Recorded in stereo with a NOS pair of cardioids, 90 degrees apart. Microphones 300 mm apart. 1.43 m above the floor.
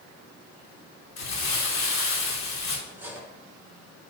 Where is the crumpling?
60° left, 3 m.